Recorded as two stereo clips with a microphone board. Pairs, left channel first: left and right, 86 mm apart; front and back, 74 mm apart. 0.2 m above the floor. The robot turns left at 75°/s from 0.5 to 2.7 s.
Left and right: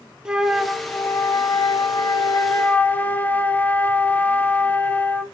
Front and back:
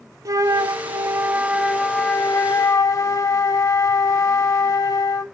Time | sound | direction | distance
0.2 | a flute | 170° right | 0.5 m